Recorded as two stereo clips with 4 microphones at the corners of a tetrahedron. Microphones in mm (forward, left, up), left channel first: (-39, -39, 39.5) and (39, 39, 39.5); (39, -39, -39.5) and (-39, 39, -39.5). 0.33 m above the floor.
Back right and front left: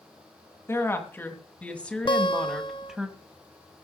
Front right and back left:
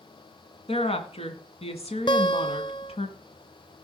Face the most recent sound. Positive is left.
turn(degrees=-90)